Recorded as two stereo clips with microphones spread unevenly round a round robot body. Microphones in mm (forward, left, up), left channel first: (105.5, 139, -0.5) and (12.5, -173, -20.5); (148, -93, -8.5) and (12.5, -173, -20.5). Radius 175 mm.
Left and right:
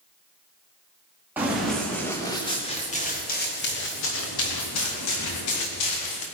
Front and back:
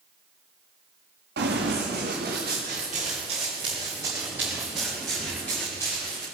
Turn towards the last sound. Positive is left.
turn(degrees=110)